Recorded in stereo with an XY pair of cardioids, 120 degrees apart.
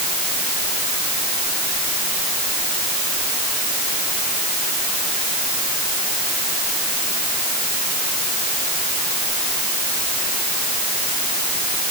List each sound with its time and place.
Only background noise.